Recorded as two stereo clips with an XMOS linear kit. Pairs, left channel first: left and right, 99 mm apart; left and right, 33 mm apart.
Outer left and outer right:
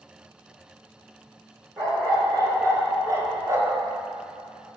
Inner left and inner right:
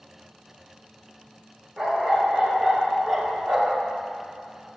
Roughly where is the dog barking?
Right.